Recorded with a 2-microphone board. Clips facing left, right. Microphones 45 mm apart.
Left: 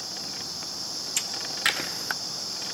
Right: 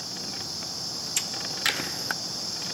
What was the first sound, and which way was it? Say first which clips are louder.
Hammering: left 2 dB; 10° left (ahead or behind).